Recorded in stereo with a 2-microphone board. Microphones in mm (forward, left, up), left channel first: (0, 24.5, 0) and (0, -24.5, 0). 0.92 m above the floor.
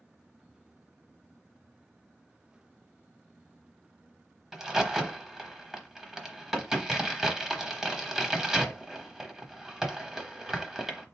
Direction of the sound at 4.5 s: 10° right (ahead or behind).